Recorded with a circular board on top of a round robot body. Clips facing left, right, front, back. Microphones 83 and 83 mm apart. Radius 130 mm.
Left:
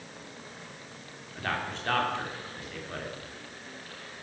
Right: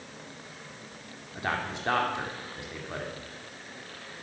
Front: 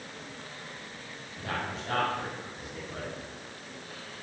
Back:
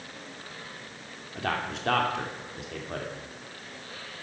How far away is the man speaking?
About 3.5 m.